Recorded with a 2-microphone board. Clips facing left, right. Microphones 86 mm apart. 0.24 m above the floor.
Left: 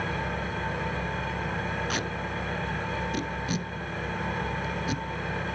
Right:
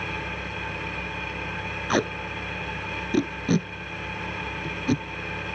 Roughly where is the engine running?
Left.